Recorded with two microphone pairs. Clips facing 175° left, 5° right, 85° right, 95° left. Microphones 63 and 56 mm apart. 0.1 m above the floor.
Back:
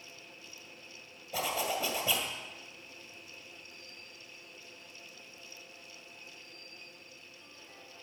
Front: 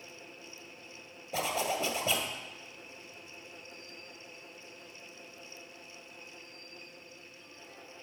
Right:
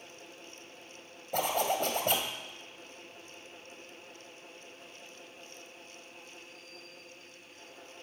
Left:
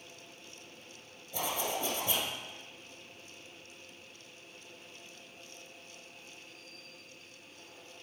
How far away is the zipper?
About 1.6 m.